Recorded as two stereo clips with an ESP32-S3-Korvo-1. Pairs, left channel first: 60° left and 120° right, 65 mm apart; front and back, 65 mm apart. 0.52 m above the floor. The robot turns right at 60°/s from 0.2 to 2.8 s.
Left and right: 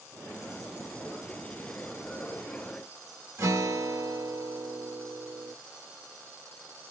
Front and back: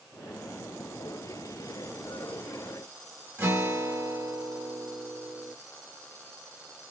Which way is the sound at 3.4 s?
140° right.